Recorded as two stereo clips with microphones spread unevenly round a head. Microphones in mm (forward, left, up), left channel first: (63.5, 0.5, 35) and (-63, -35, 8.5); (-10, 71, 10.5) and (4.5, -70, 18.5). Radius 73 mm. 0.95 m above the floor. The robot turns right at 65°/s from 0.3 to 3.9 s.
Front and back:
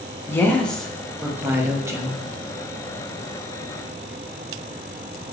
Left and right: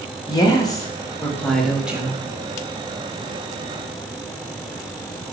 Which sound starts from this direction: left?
A woman speaking, at 0.3 s.